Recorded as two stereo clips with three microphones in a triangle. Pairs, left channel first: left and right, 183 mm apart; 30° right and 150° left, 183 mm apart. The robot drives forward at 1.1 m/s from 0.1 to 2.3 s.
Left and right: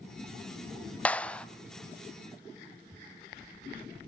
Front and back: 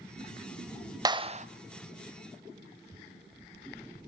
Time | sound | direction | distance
1.1 | a clap | 155° left | 0.8 m